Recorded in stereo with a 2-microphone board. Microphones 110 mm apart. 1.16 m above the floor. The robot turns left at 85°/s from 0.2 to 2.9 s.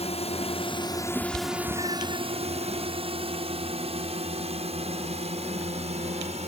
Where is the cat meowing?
10° right (ahead or behind); by 2.2 s 60° right (ahead or behind).